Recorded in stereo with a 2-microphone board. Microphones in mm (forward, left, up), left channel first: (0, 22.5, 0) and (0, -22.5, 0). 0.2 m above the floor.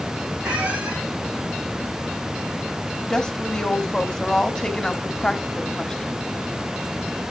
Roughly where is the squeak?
Right.